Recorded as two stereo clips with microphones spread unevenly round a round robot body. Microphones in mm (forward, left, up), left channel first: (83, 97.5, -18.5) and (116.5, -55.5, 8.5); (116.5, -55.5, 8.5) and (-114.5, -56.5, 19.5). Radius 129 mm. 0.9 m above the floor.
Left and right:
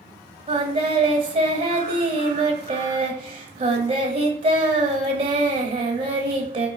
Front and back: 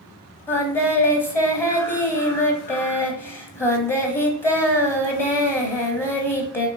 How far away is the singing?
About 0.8 m.